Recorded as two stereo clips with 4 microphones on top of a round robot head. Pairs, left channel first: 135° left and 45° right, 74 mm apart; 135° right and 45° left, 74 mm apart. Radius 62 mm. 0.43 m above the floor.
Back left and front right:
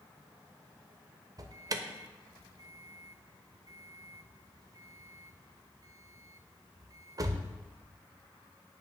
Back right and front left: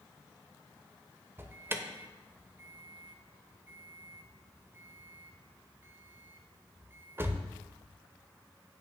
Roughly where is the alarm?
Ahead.